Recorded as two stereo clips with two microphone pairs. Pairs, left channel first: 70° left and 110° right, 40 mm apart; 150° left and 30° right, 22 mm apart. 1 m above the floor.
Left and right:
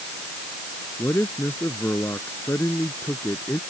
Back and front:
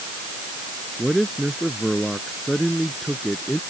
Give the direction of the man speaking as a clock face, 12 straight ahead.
10 o'clock.